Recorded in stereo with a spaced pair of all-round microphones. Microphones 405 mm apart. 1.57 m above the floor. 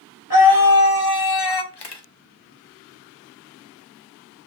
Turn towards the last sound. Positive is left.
turn(degrees=85)